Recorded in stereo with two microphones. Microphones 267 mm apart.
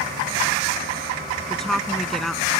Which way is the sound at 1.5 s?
Centre (ahead or behind).